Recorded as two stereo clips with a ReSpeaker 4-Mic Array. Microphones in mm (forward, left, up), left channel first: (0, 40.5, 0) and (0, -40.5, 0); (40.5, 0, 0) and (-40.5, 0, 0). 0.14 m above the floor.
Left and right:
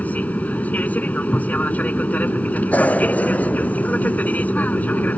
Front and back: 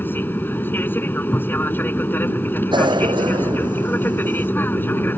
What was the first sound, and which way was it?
An aircraft, 40° left.